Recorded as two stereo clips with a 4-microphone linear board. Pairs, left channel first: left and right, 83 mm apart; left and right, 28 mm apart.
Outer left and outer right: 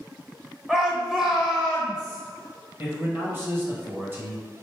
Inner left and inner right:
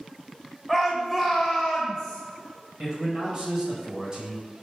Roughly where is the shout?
Centre.